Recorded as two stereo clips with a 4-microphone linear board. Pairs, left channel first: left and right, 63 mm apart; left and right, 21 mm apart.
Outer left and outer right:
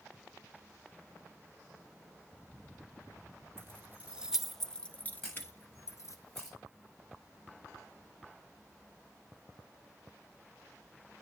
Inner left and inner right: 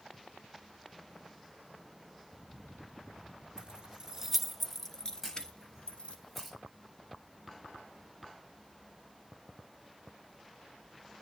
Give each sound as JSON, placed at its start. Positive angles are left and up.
{"t": 3.6, "sound": "keys jangling", "side_deg": -40, "distance_m": 1.0}
{"t": 5.2, "sound": "a camera shutter", "side_deg": 5, "distance_m": 6.5}